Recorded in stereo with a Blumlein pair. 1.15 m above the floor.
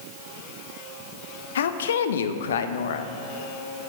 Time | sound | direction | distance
1.6 | a woman speaking | 60° left | 0.7 m